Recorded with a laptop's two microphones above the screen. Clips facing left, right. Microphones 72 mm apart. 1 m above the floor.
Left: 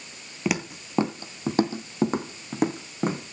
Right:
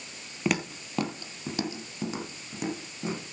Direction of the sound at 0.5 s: 5° left (ahead or behind).